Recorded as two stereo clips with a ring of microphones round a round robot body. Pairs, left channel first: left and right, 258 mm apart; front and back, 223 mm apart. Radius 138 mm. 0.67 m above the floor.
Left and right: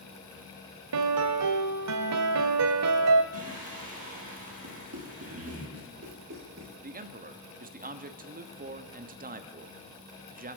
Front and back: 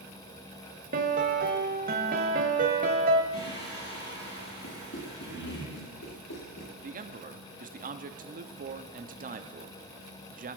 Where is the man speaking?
140° right, 1.0 m.